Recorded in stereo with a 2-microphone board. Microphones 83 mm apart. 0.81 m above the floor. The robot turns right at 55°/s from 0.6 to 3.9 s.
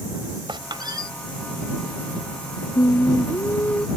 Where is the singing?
110° left; by 3.9 s 170° left.